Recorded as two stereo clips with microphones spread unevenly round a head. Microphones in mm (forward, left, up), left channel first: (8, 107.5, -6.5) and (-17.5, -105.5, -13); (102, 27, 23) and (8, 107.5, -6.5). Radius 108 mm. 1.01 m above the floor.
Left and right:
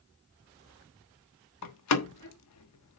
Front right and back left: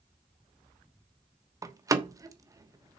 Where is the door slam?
75° left, 1.2 m.